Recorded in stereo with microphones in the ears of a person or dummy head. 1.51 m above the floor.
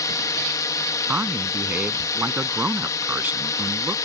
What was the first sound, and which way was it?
A drone, 15° left (ahead or behind).